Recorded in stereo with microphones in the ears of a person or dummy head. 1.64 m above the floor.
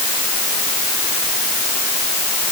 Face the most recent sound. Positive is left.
No sound to turn to.